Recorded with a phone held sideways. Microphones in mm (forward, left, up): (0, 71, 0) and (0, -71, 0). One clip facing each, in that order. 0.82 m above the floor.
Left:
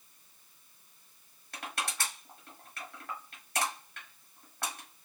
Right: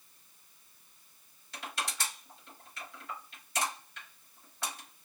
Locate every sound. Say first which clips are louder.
1.5 s crushing: left 1 dB; 55° left (ahead or behind), 2 m